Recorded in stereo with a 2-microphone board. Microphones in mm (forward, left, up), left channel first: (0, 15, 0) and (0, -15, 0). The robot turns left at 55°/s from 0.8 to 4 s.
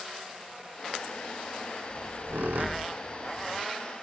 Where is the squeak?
45° right (ahead or behind), 0.6 m; by 3.6 s 35° right (ahead or behind), 0.6 m.